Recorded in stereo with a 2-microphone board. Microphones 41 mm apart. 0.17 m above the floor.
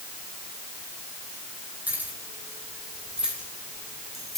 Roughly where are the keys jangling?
Right.